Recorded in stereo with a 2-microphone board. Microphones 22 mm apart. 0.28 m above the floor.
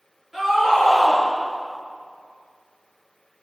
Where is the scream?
25° right (ahead or behind), 5 m.